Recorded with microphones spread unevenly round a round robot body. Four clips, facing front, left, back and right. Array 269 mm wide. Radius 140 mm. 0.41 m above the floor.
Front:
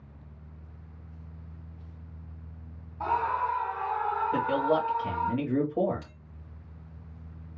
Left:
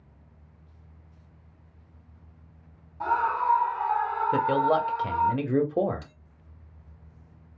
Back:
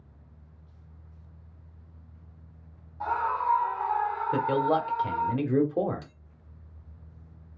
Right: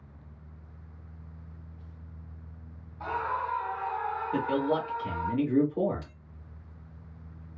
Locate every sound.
3.0 s a scream: 80° left, 3 m; by 5.3 s 60° left, 2 m
4.3 s a man speaking: 90° left, 1.4 m
6.0 s a bell: 65° left, 2 m